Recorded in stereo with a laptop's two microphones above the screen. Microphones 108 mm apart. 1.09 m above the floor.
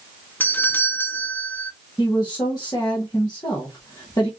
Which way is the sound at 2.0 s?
40° left (ahead or behind).